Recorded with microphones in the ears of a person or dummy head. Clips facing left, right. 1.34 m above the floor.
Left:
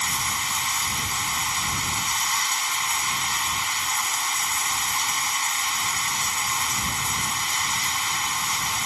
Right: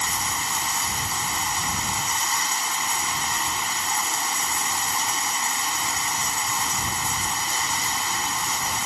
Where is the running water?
40° right (ahead or behind).